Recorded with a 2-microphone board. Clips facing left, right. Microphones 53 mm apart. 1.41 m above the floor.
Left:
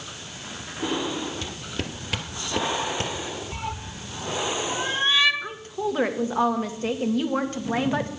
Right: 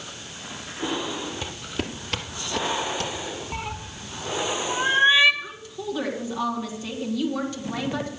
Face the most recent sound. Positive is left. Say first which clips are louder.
# left 5 dB
turn(degrees=40)  # may be behind; listen again after turning